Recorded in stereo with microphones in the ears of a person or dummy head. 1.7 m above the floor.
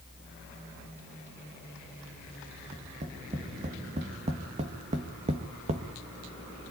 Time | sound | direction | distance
2.7 | tapping | 35° right (ahead or behind) | 2 m